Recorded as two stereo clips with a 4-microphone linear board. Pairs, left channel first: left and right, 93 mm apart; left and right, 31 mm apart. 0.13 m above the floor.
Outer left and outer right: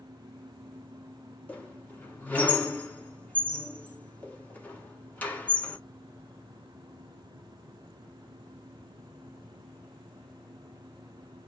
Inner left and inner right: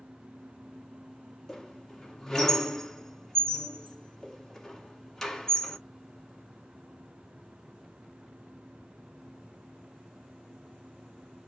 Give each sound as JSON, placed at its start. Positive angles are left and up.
{"t": 1.5, "sound": "a squeak", "side_deg": 15, "distance_m": 1.0}